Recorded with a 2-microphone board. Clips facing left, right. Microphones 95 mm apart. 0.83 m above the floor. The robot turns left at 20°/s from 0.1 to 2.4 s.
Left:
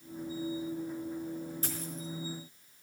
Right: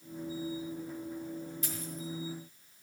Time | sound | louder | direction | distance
1.6 | a dropped coin | left 1 dB | 35° left (ahead or behind) | 4 m